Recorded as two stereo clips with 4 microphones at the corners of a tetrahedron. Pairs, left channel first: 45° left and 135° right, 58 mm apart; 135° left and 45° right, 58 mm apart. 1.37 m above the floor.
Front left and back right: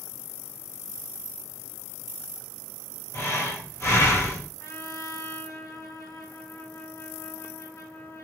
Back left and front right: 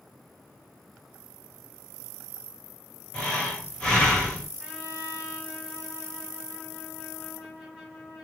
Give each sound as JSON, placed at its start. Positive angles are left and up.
{"t": 3.1, "sound": "breathing", "azimuth_deg": 65, "distance_m": 1.9}
{"t": 4.6, "sound": "a trumpet", "azimuth_deg": 35, "distance_m": 2.5}